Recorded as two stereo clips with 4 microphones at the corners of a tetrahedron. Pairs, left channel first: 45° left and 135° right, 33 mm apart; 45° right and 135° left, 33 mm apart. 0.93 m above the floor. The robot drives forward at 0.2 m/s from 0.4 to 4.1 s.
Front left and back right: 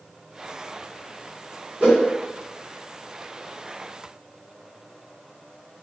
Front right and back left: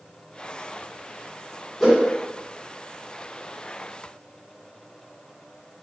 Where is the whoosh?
130° right, 1.3 m.